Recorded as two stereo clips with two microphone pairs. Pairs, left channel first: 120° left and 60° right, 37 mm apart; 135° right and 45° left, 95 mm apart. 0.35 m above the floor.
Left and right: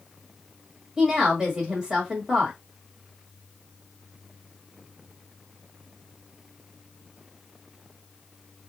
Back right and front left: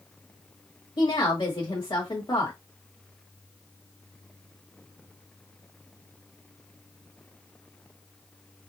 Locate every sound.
1.0 s a woman speaking: 125° right, 1.5 m